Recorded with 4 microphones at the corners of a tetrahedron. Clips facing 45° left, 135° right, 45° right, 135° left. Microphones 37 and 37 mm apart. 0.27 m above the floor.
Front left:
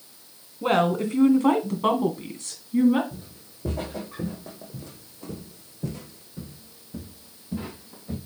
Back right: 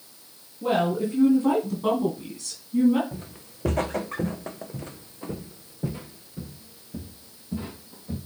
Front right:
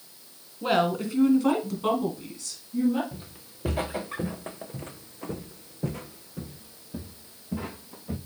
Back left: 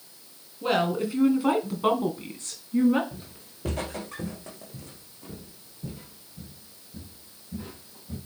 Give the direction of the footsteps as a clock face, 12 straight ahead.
4 o'clock.